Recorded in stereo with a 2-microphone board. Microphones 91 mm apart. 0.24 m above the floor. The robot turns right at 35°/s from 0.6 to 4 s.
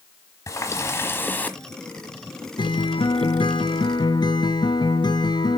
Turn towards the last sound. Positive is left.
turn(degrees=120)